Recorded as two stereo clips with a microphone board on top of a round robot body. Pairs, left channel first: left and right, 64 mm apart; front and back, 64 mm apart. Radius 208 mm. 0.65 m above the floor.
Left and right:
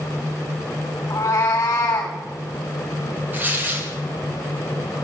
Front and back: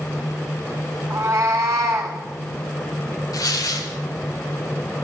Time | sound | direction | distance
1.1 | a cat meowing | 130° left | 0.9 m
3.3 | tearing paper | 30° right | 1.9 m